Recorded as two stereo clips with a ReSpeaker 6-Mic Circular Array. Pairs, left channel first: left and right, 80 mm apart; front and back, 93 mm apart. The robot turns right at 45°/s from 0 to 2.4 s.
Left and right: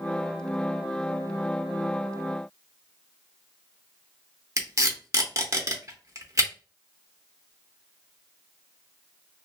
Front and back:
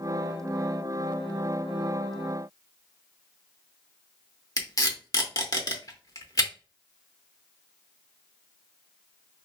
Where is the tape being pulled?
40° right, 0.7 m.